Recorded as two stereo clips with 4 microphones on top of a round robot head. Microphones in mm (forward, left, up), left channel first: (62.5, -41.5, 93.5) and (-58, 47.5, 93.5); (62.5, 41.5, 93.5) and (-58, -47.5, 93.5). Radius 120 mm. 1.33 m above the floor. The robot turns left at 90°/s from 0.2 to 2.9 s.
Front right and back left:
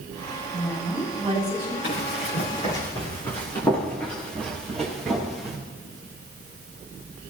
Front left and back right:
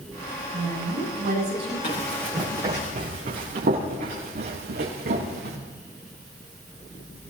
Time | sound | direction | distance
0.5 | a woman speaking | 100° right | 9 m
1.8 | running footsteps | 5° right | 5.5 m